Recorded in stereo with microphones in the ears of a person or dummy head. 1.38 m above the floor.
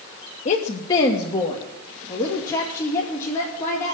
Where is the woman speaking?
35° left (ahead or behind), 0.9 m; by 4.0 s 15° left (ahead or behind), 3.5 m.